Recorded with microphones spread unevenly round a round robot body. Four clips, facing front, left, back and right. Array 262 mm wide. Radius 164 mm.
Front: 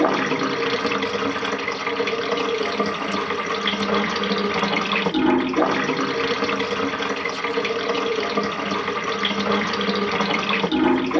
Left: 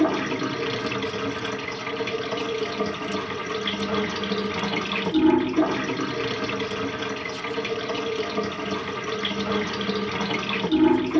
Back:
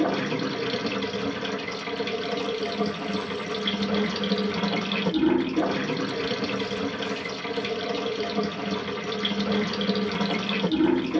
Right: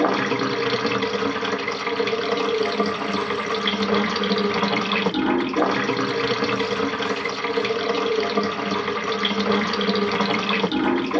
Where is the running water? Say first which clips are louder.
Right 2 dB, front 5 dB; 60° right, 0.8 m.